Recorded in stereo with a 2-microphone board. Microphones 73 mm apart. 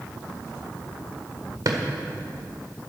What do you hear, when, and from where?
1.6 s a drawer: 55° right (ahead or behind), 1.6 m